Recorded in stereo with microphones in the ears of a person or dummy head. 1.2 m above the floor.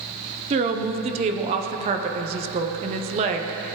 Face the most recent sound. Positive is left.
turn(degrees=-35)  # may be behind; listen again after turning